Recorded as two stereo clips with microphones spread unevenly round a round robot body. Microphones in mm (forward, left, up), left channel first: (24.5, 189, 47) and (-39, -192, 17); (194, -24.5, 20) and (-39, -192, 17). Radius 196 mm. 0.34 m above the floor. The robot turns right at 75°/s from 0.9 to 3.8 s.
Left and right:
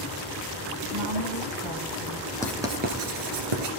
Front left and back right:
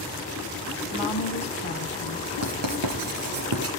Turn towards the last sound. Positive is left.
turn(degrees=-95)